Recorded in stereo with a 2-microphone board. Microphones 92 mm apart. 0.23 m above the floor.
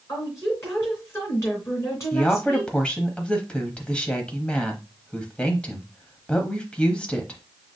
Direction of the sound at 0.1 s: 30° left (ahead or behind).